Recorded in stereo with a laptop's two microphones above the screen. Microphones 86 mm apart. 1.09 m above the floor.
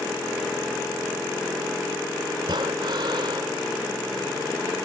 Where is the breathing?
70° right (ahead or behind).